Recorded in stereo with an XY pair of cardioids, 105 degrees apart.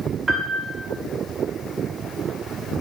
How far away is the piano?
About 0.7 m.